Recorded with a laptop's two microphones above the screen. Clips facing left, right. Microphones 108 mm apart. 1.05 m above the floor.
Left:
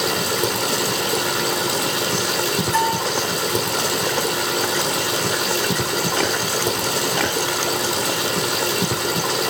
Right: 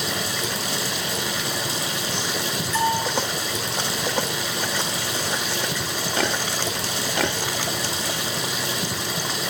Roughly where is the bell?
Left.